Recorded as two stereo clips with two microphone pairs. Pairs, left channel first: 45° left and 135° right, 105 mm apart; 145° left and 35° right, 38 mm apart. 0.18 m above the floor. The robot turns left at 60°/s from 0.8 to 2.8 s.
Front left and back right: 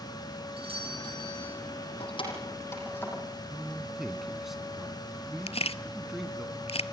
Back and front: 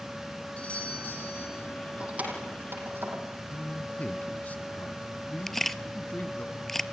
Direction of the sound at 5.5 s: 60° left.